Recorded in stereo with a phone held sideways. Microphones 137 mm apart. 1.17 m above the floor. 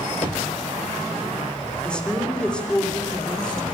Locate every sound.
1.8 s a woman speaking: 5° left (ahead or behind), 3 m